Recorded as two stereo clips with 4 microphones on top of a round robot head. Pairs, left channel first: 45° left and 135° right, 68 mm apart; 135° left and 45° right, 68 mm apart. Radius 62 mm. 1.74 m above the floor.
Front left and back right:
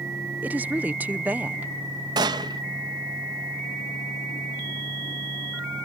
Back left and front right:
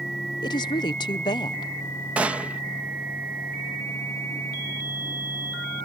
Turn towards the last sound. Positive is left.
turn(degrees=-115)